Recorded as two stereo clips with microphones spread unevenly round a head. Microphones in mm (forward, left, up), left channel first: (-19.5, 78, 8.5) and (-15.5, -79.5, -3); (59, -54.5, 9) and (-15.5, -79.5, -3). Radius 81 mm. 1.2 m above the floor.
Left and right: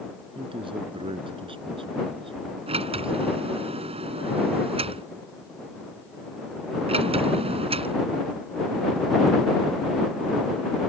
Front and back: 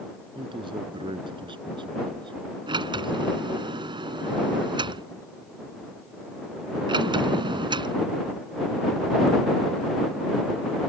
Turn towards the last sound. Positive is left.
turn(degrees=-145)